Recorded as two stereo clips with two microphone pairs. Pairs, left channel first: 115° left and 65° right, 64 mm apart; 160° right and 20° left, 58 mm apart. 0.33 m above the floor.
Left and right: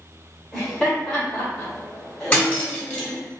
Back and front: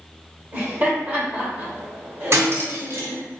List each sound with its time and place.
0.5 s laughter: 50° left, 1.6 m
2.3 s cutlery clinking: 50° left, 1.0 m